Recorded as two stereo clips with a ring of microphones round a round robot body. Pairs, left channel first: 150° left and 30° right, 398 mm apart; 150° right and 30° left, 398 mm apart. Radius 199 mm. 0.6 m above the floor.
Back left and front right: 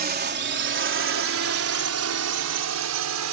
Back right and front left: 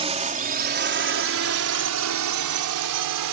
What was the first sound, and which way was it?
A drone, 20° right.